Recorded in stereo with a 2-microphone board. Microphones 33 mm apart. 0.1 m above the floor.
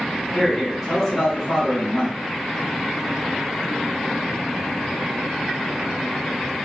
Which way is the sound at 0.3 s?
5° left (ahead or behind).